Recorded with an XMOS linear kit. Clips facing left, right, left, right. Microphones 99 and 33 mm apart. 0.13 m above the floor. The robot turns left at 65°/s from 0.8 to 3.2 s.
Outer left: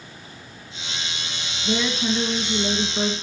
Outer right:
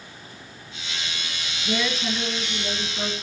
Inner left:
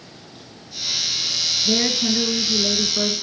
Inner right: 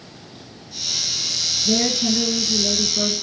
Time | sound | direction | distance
1.6 | a woman speaking | 155° left | 1.8 m